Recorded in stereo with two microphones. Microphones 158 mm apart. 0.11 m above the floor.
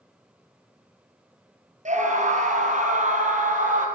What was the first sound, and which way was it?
A scream, 50° right (ahead or behind).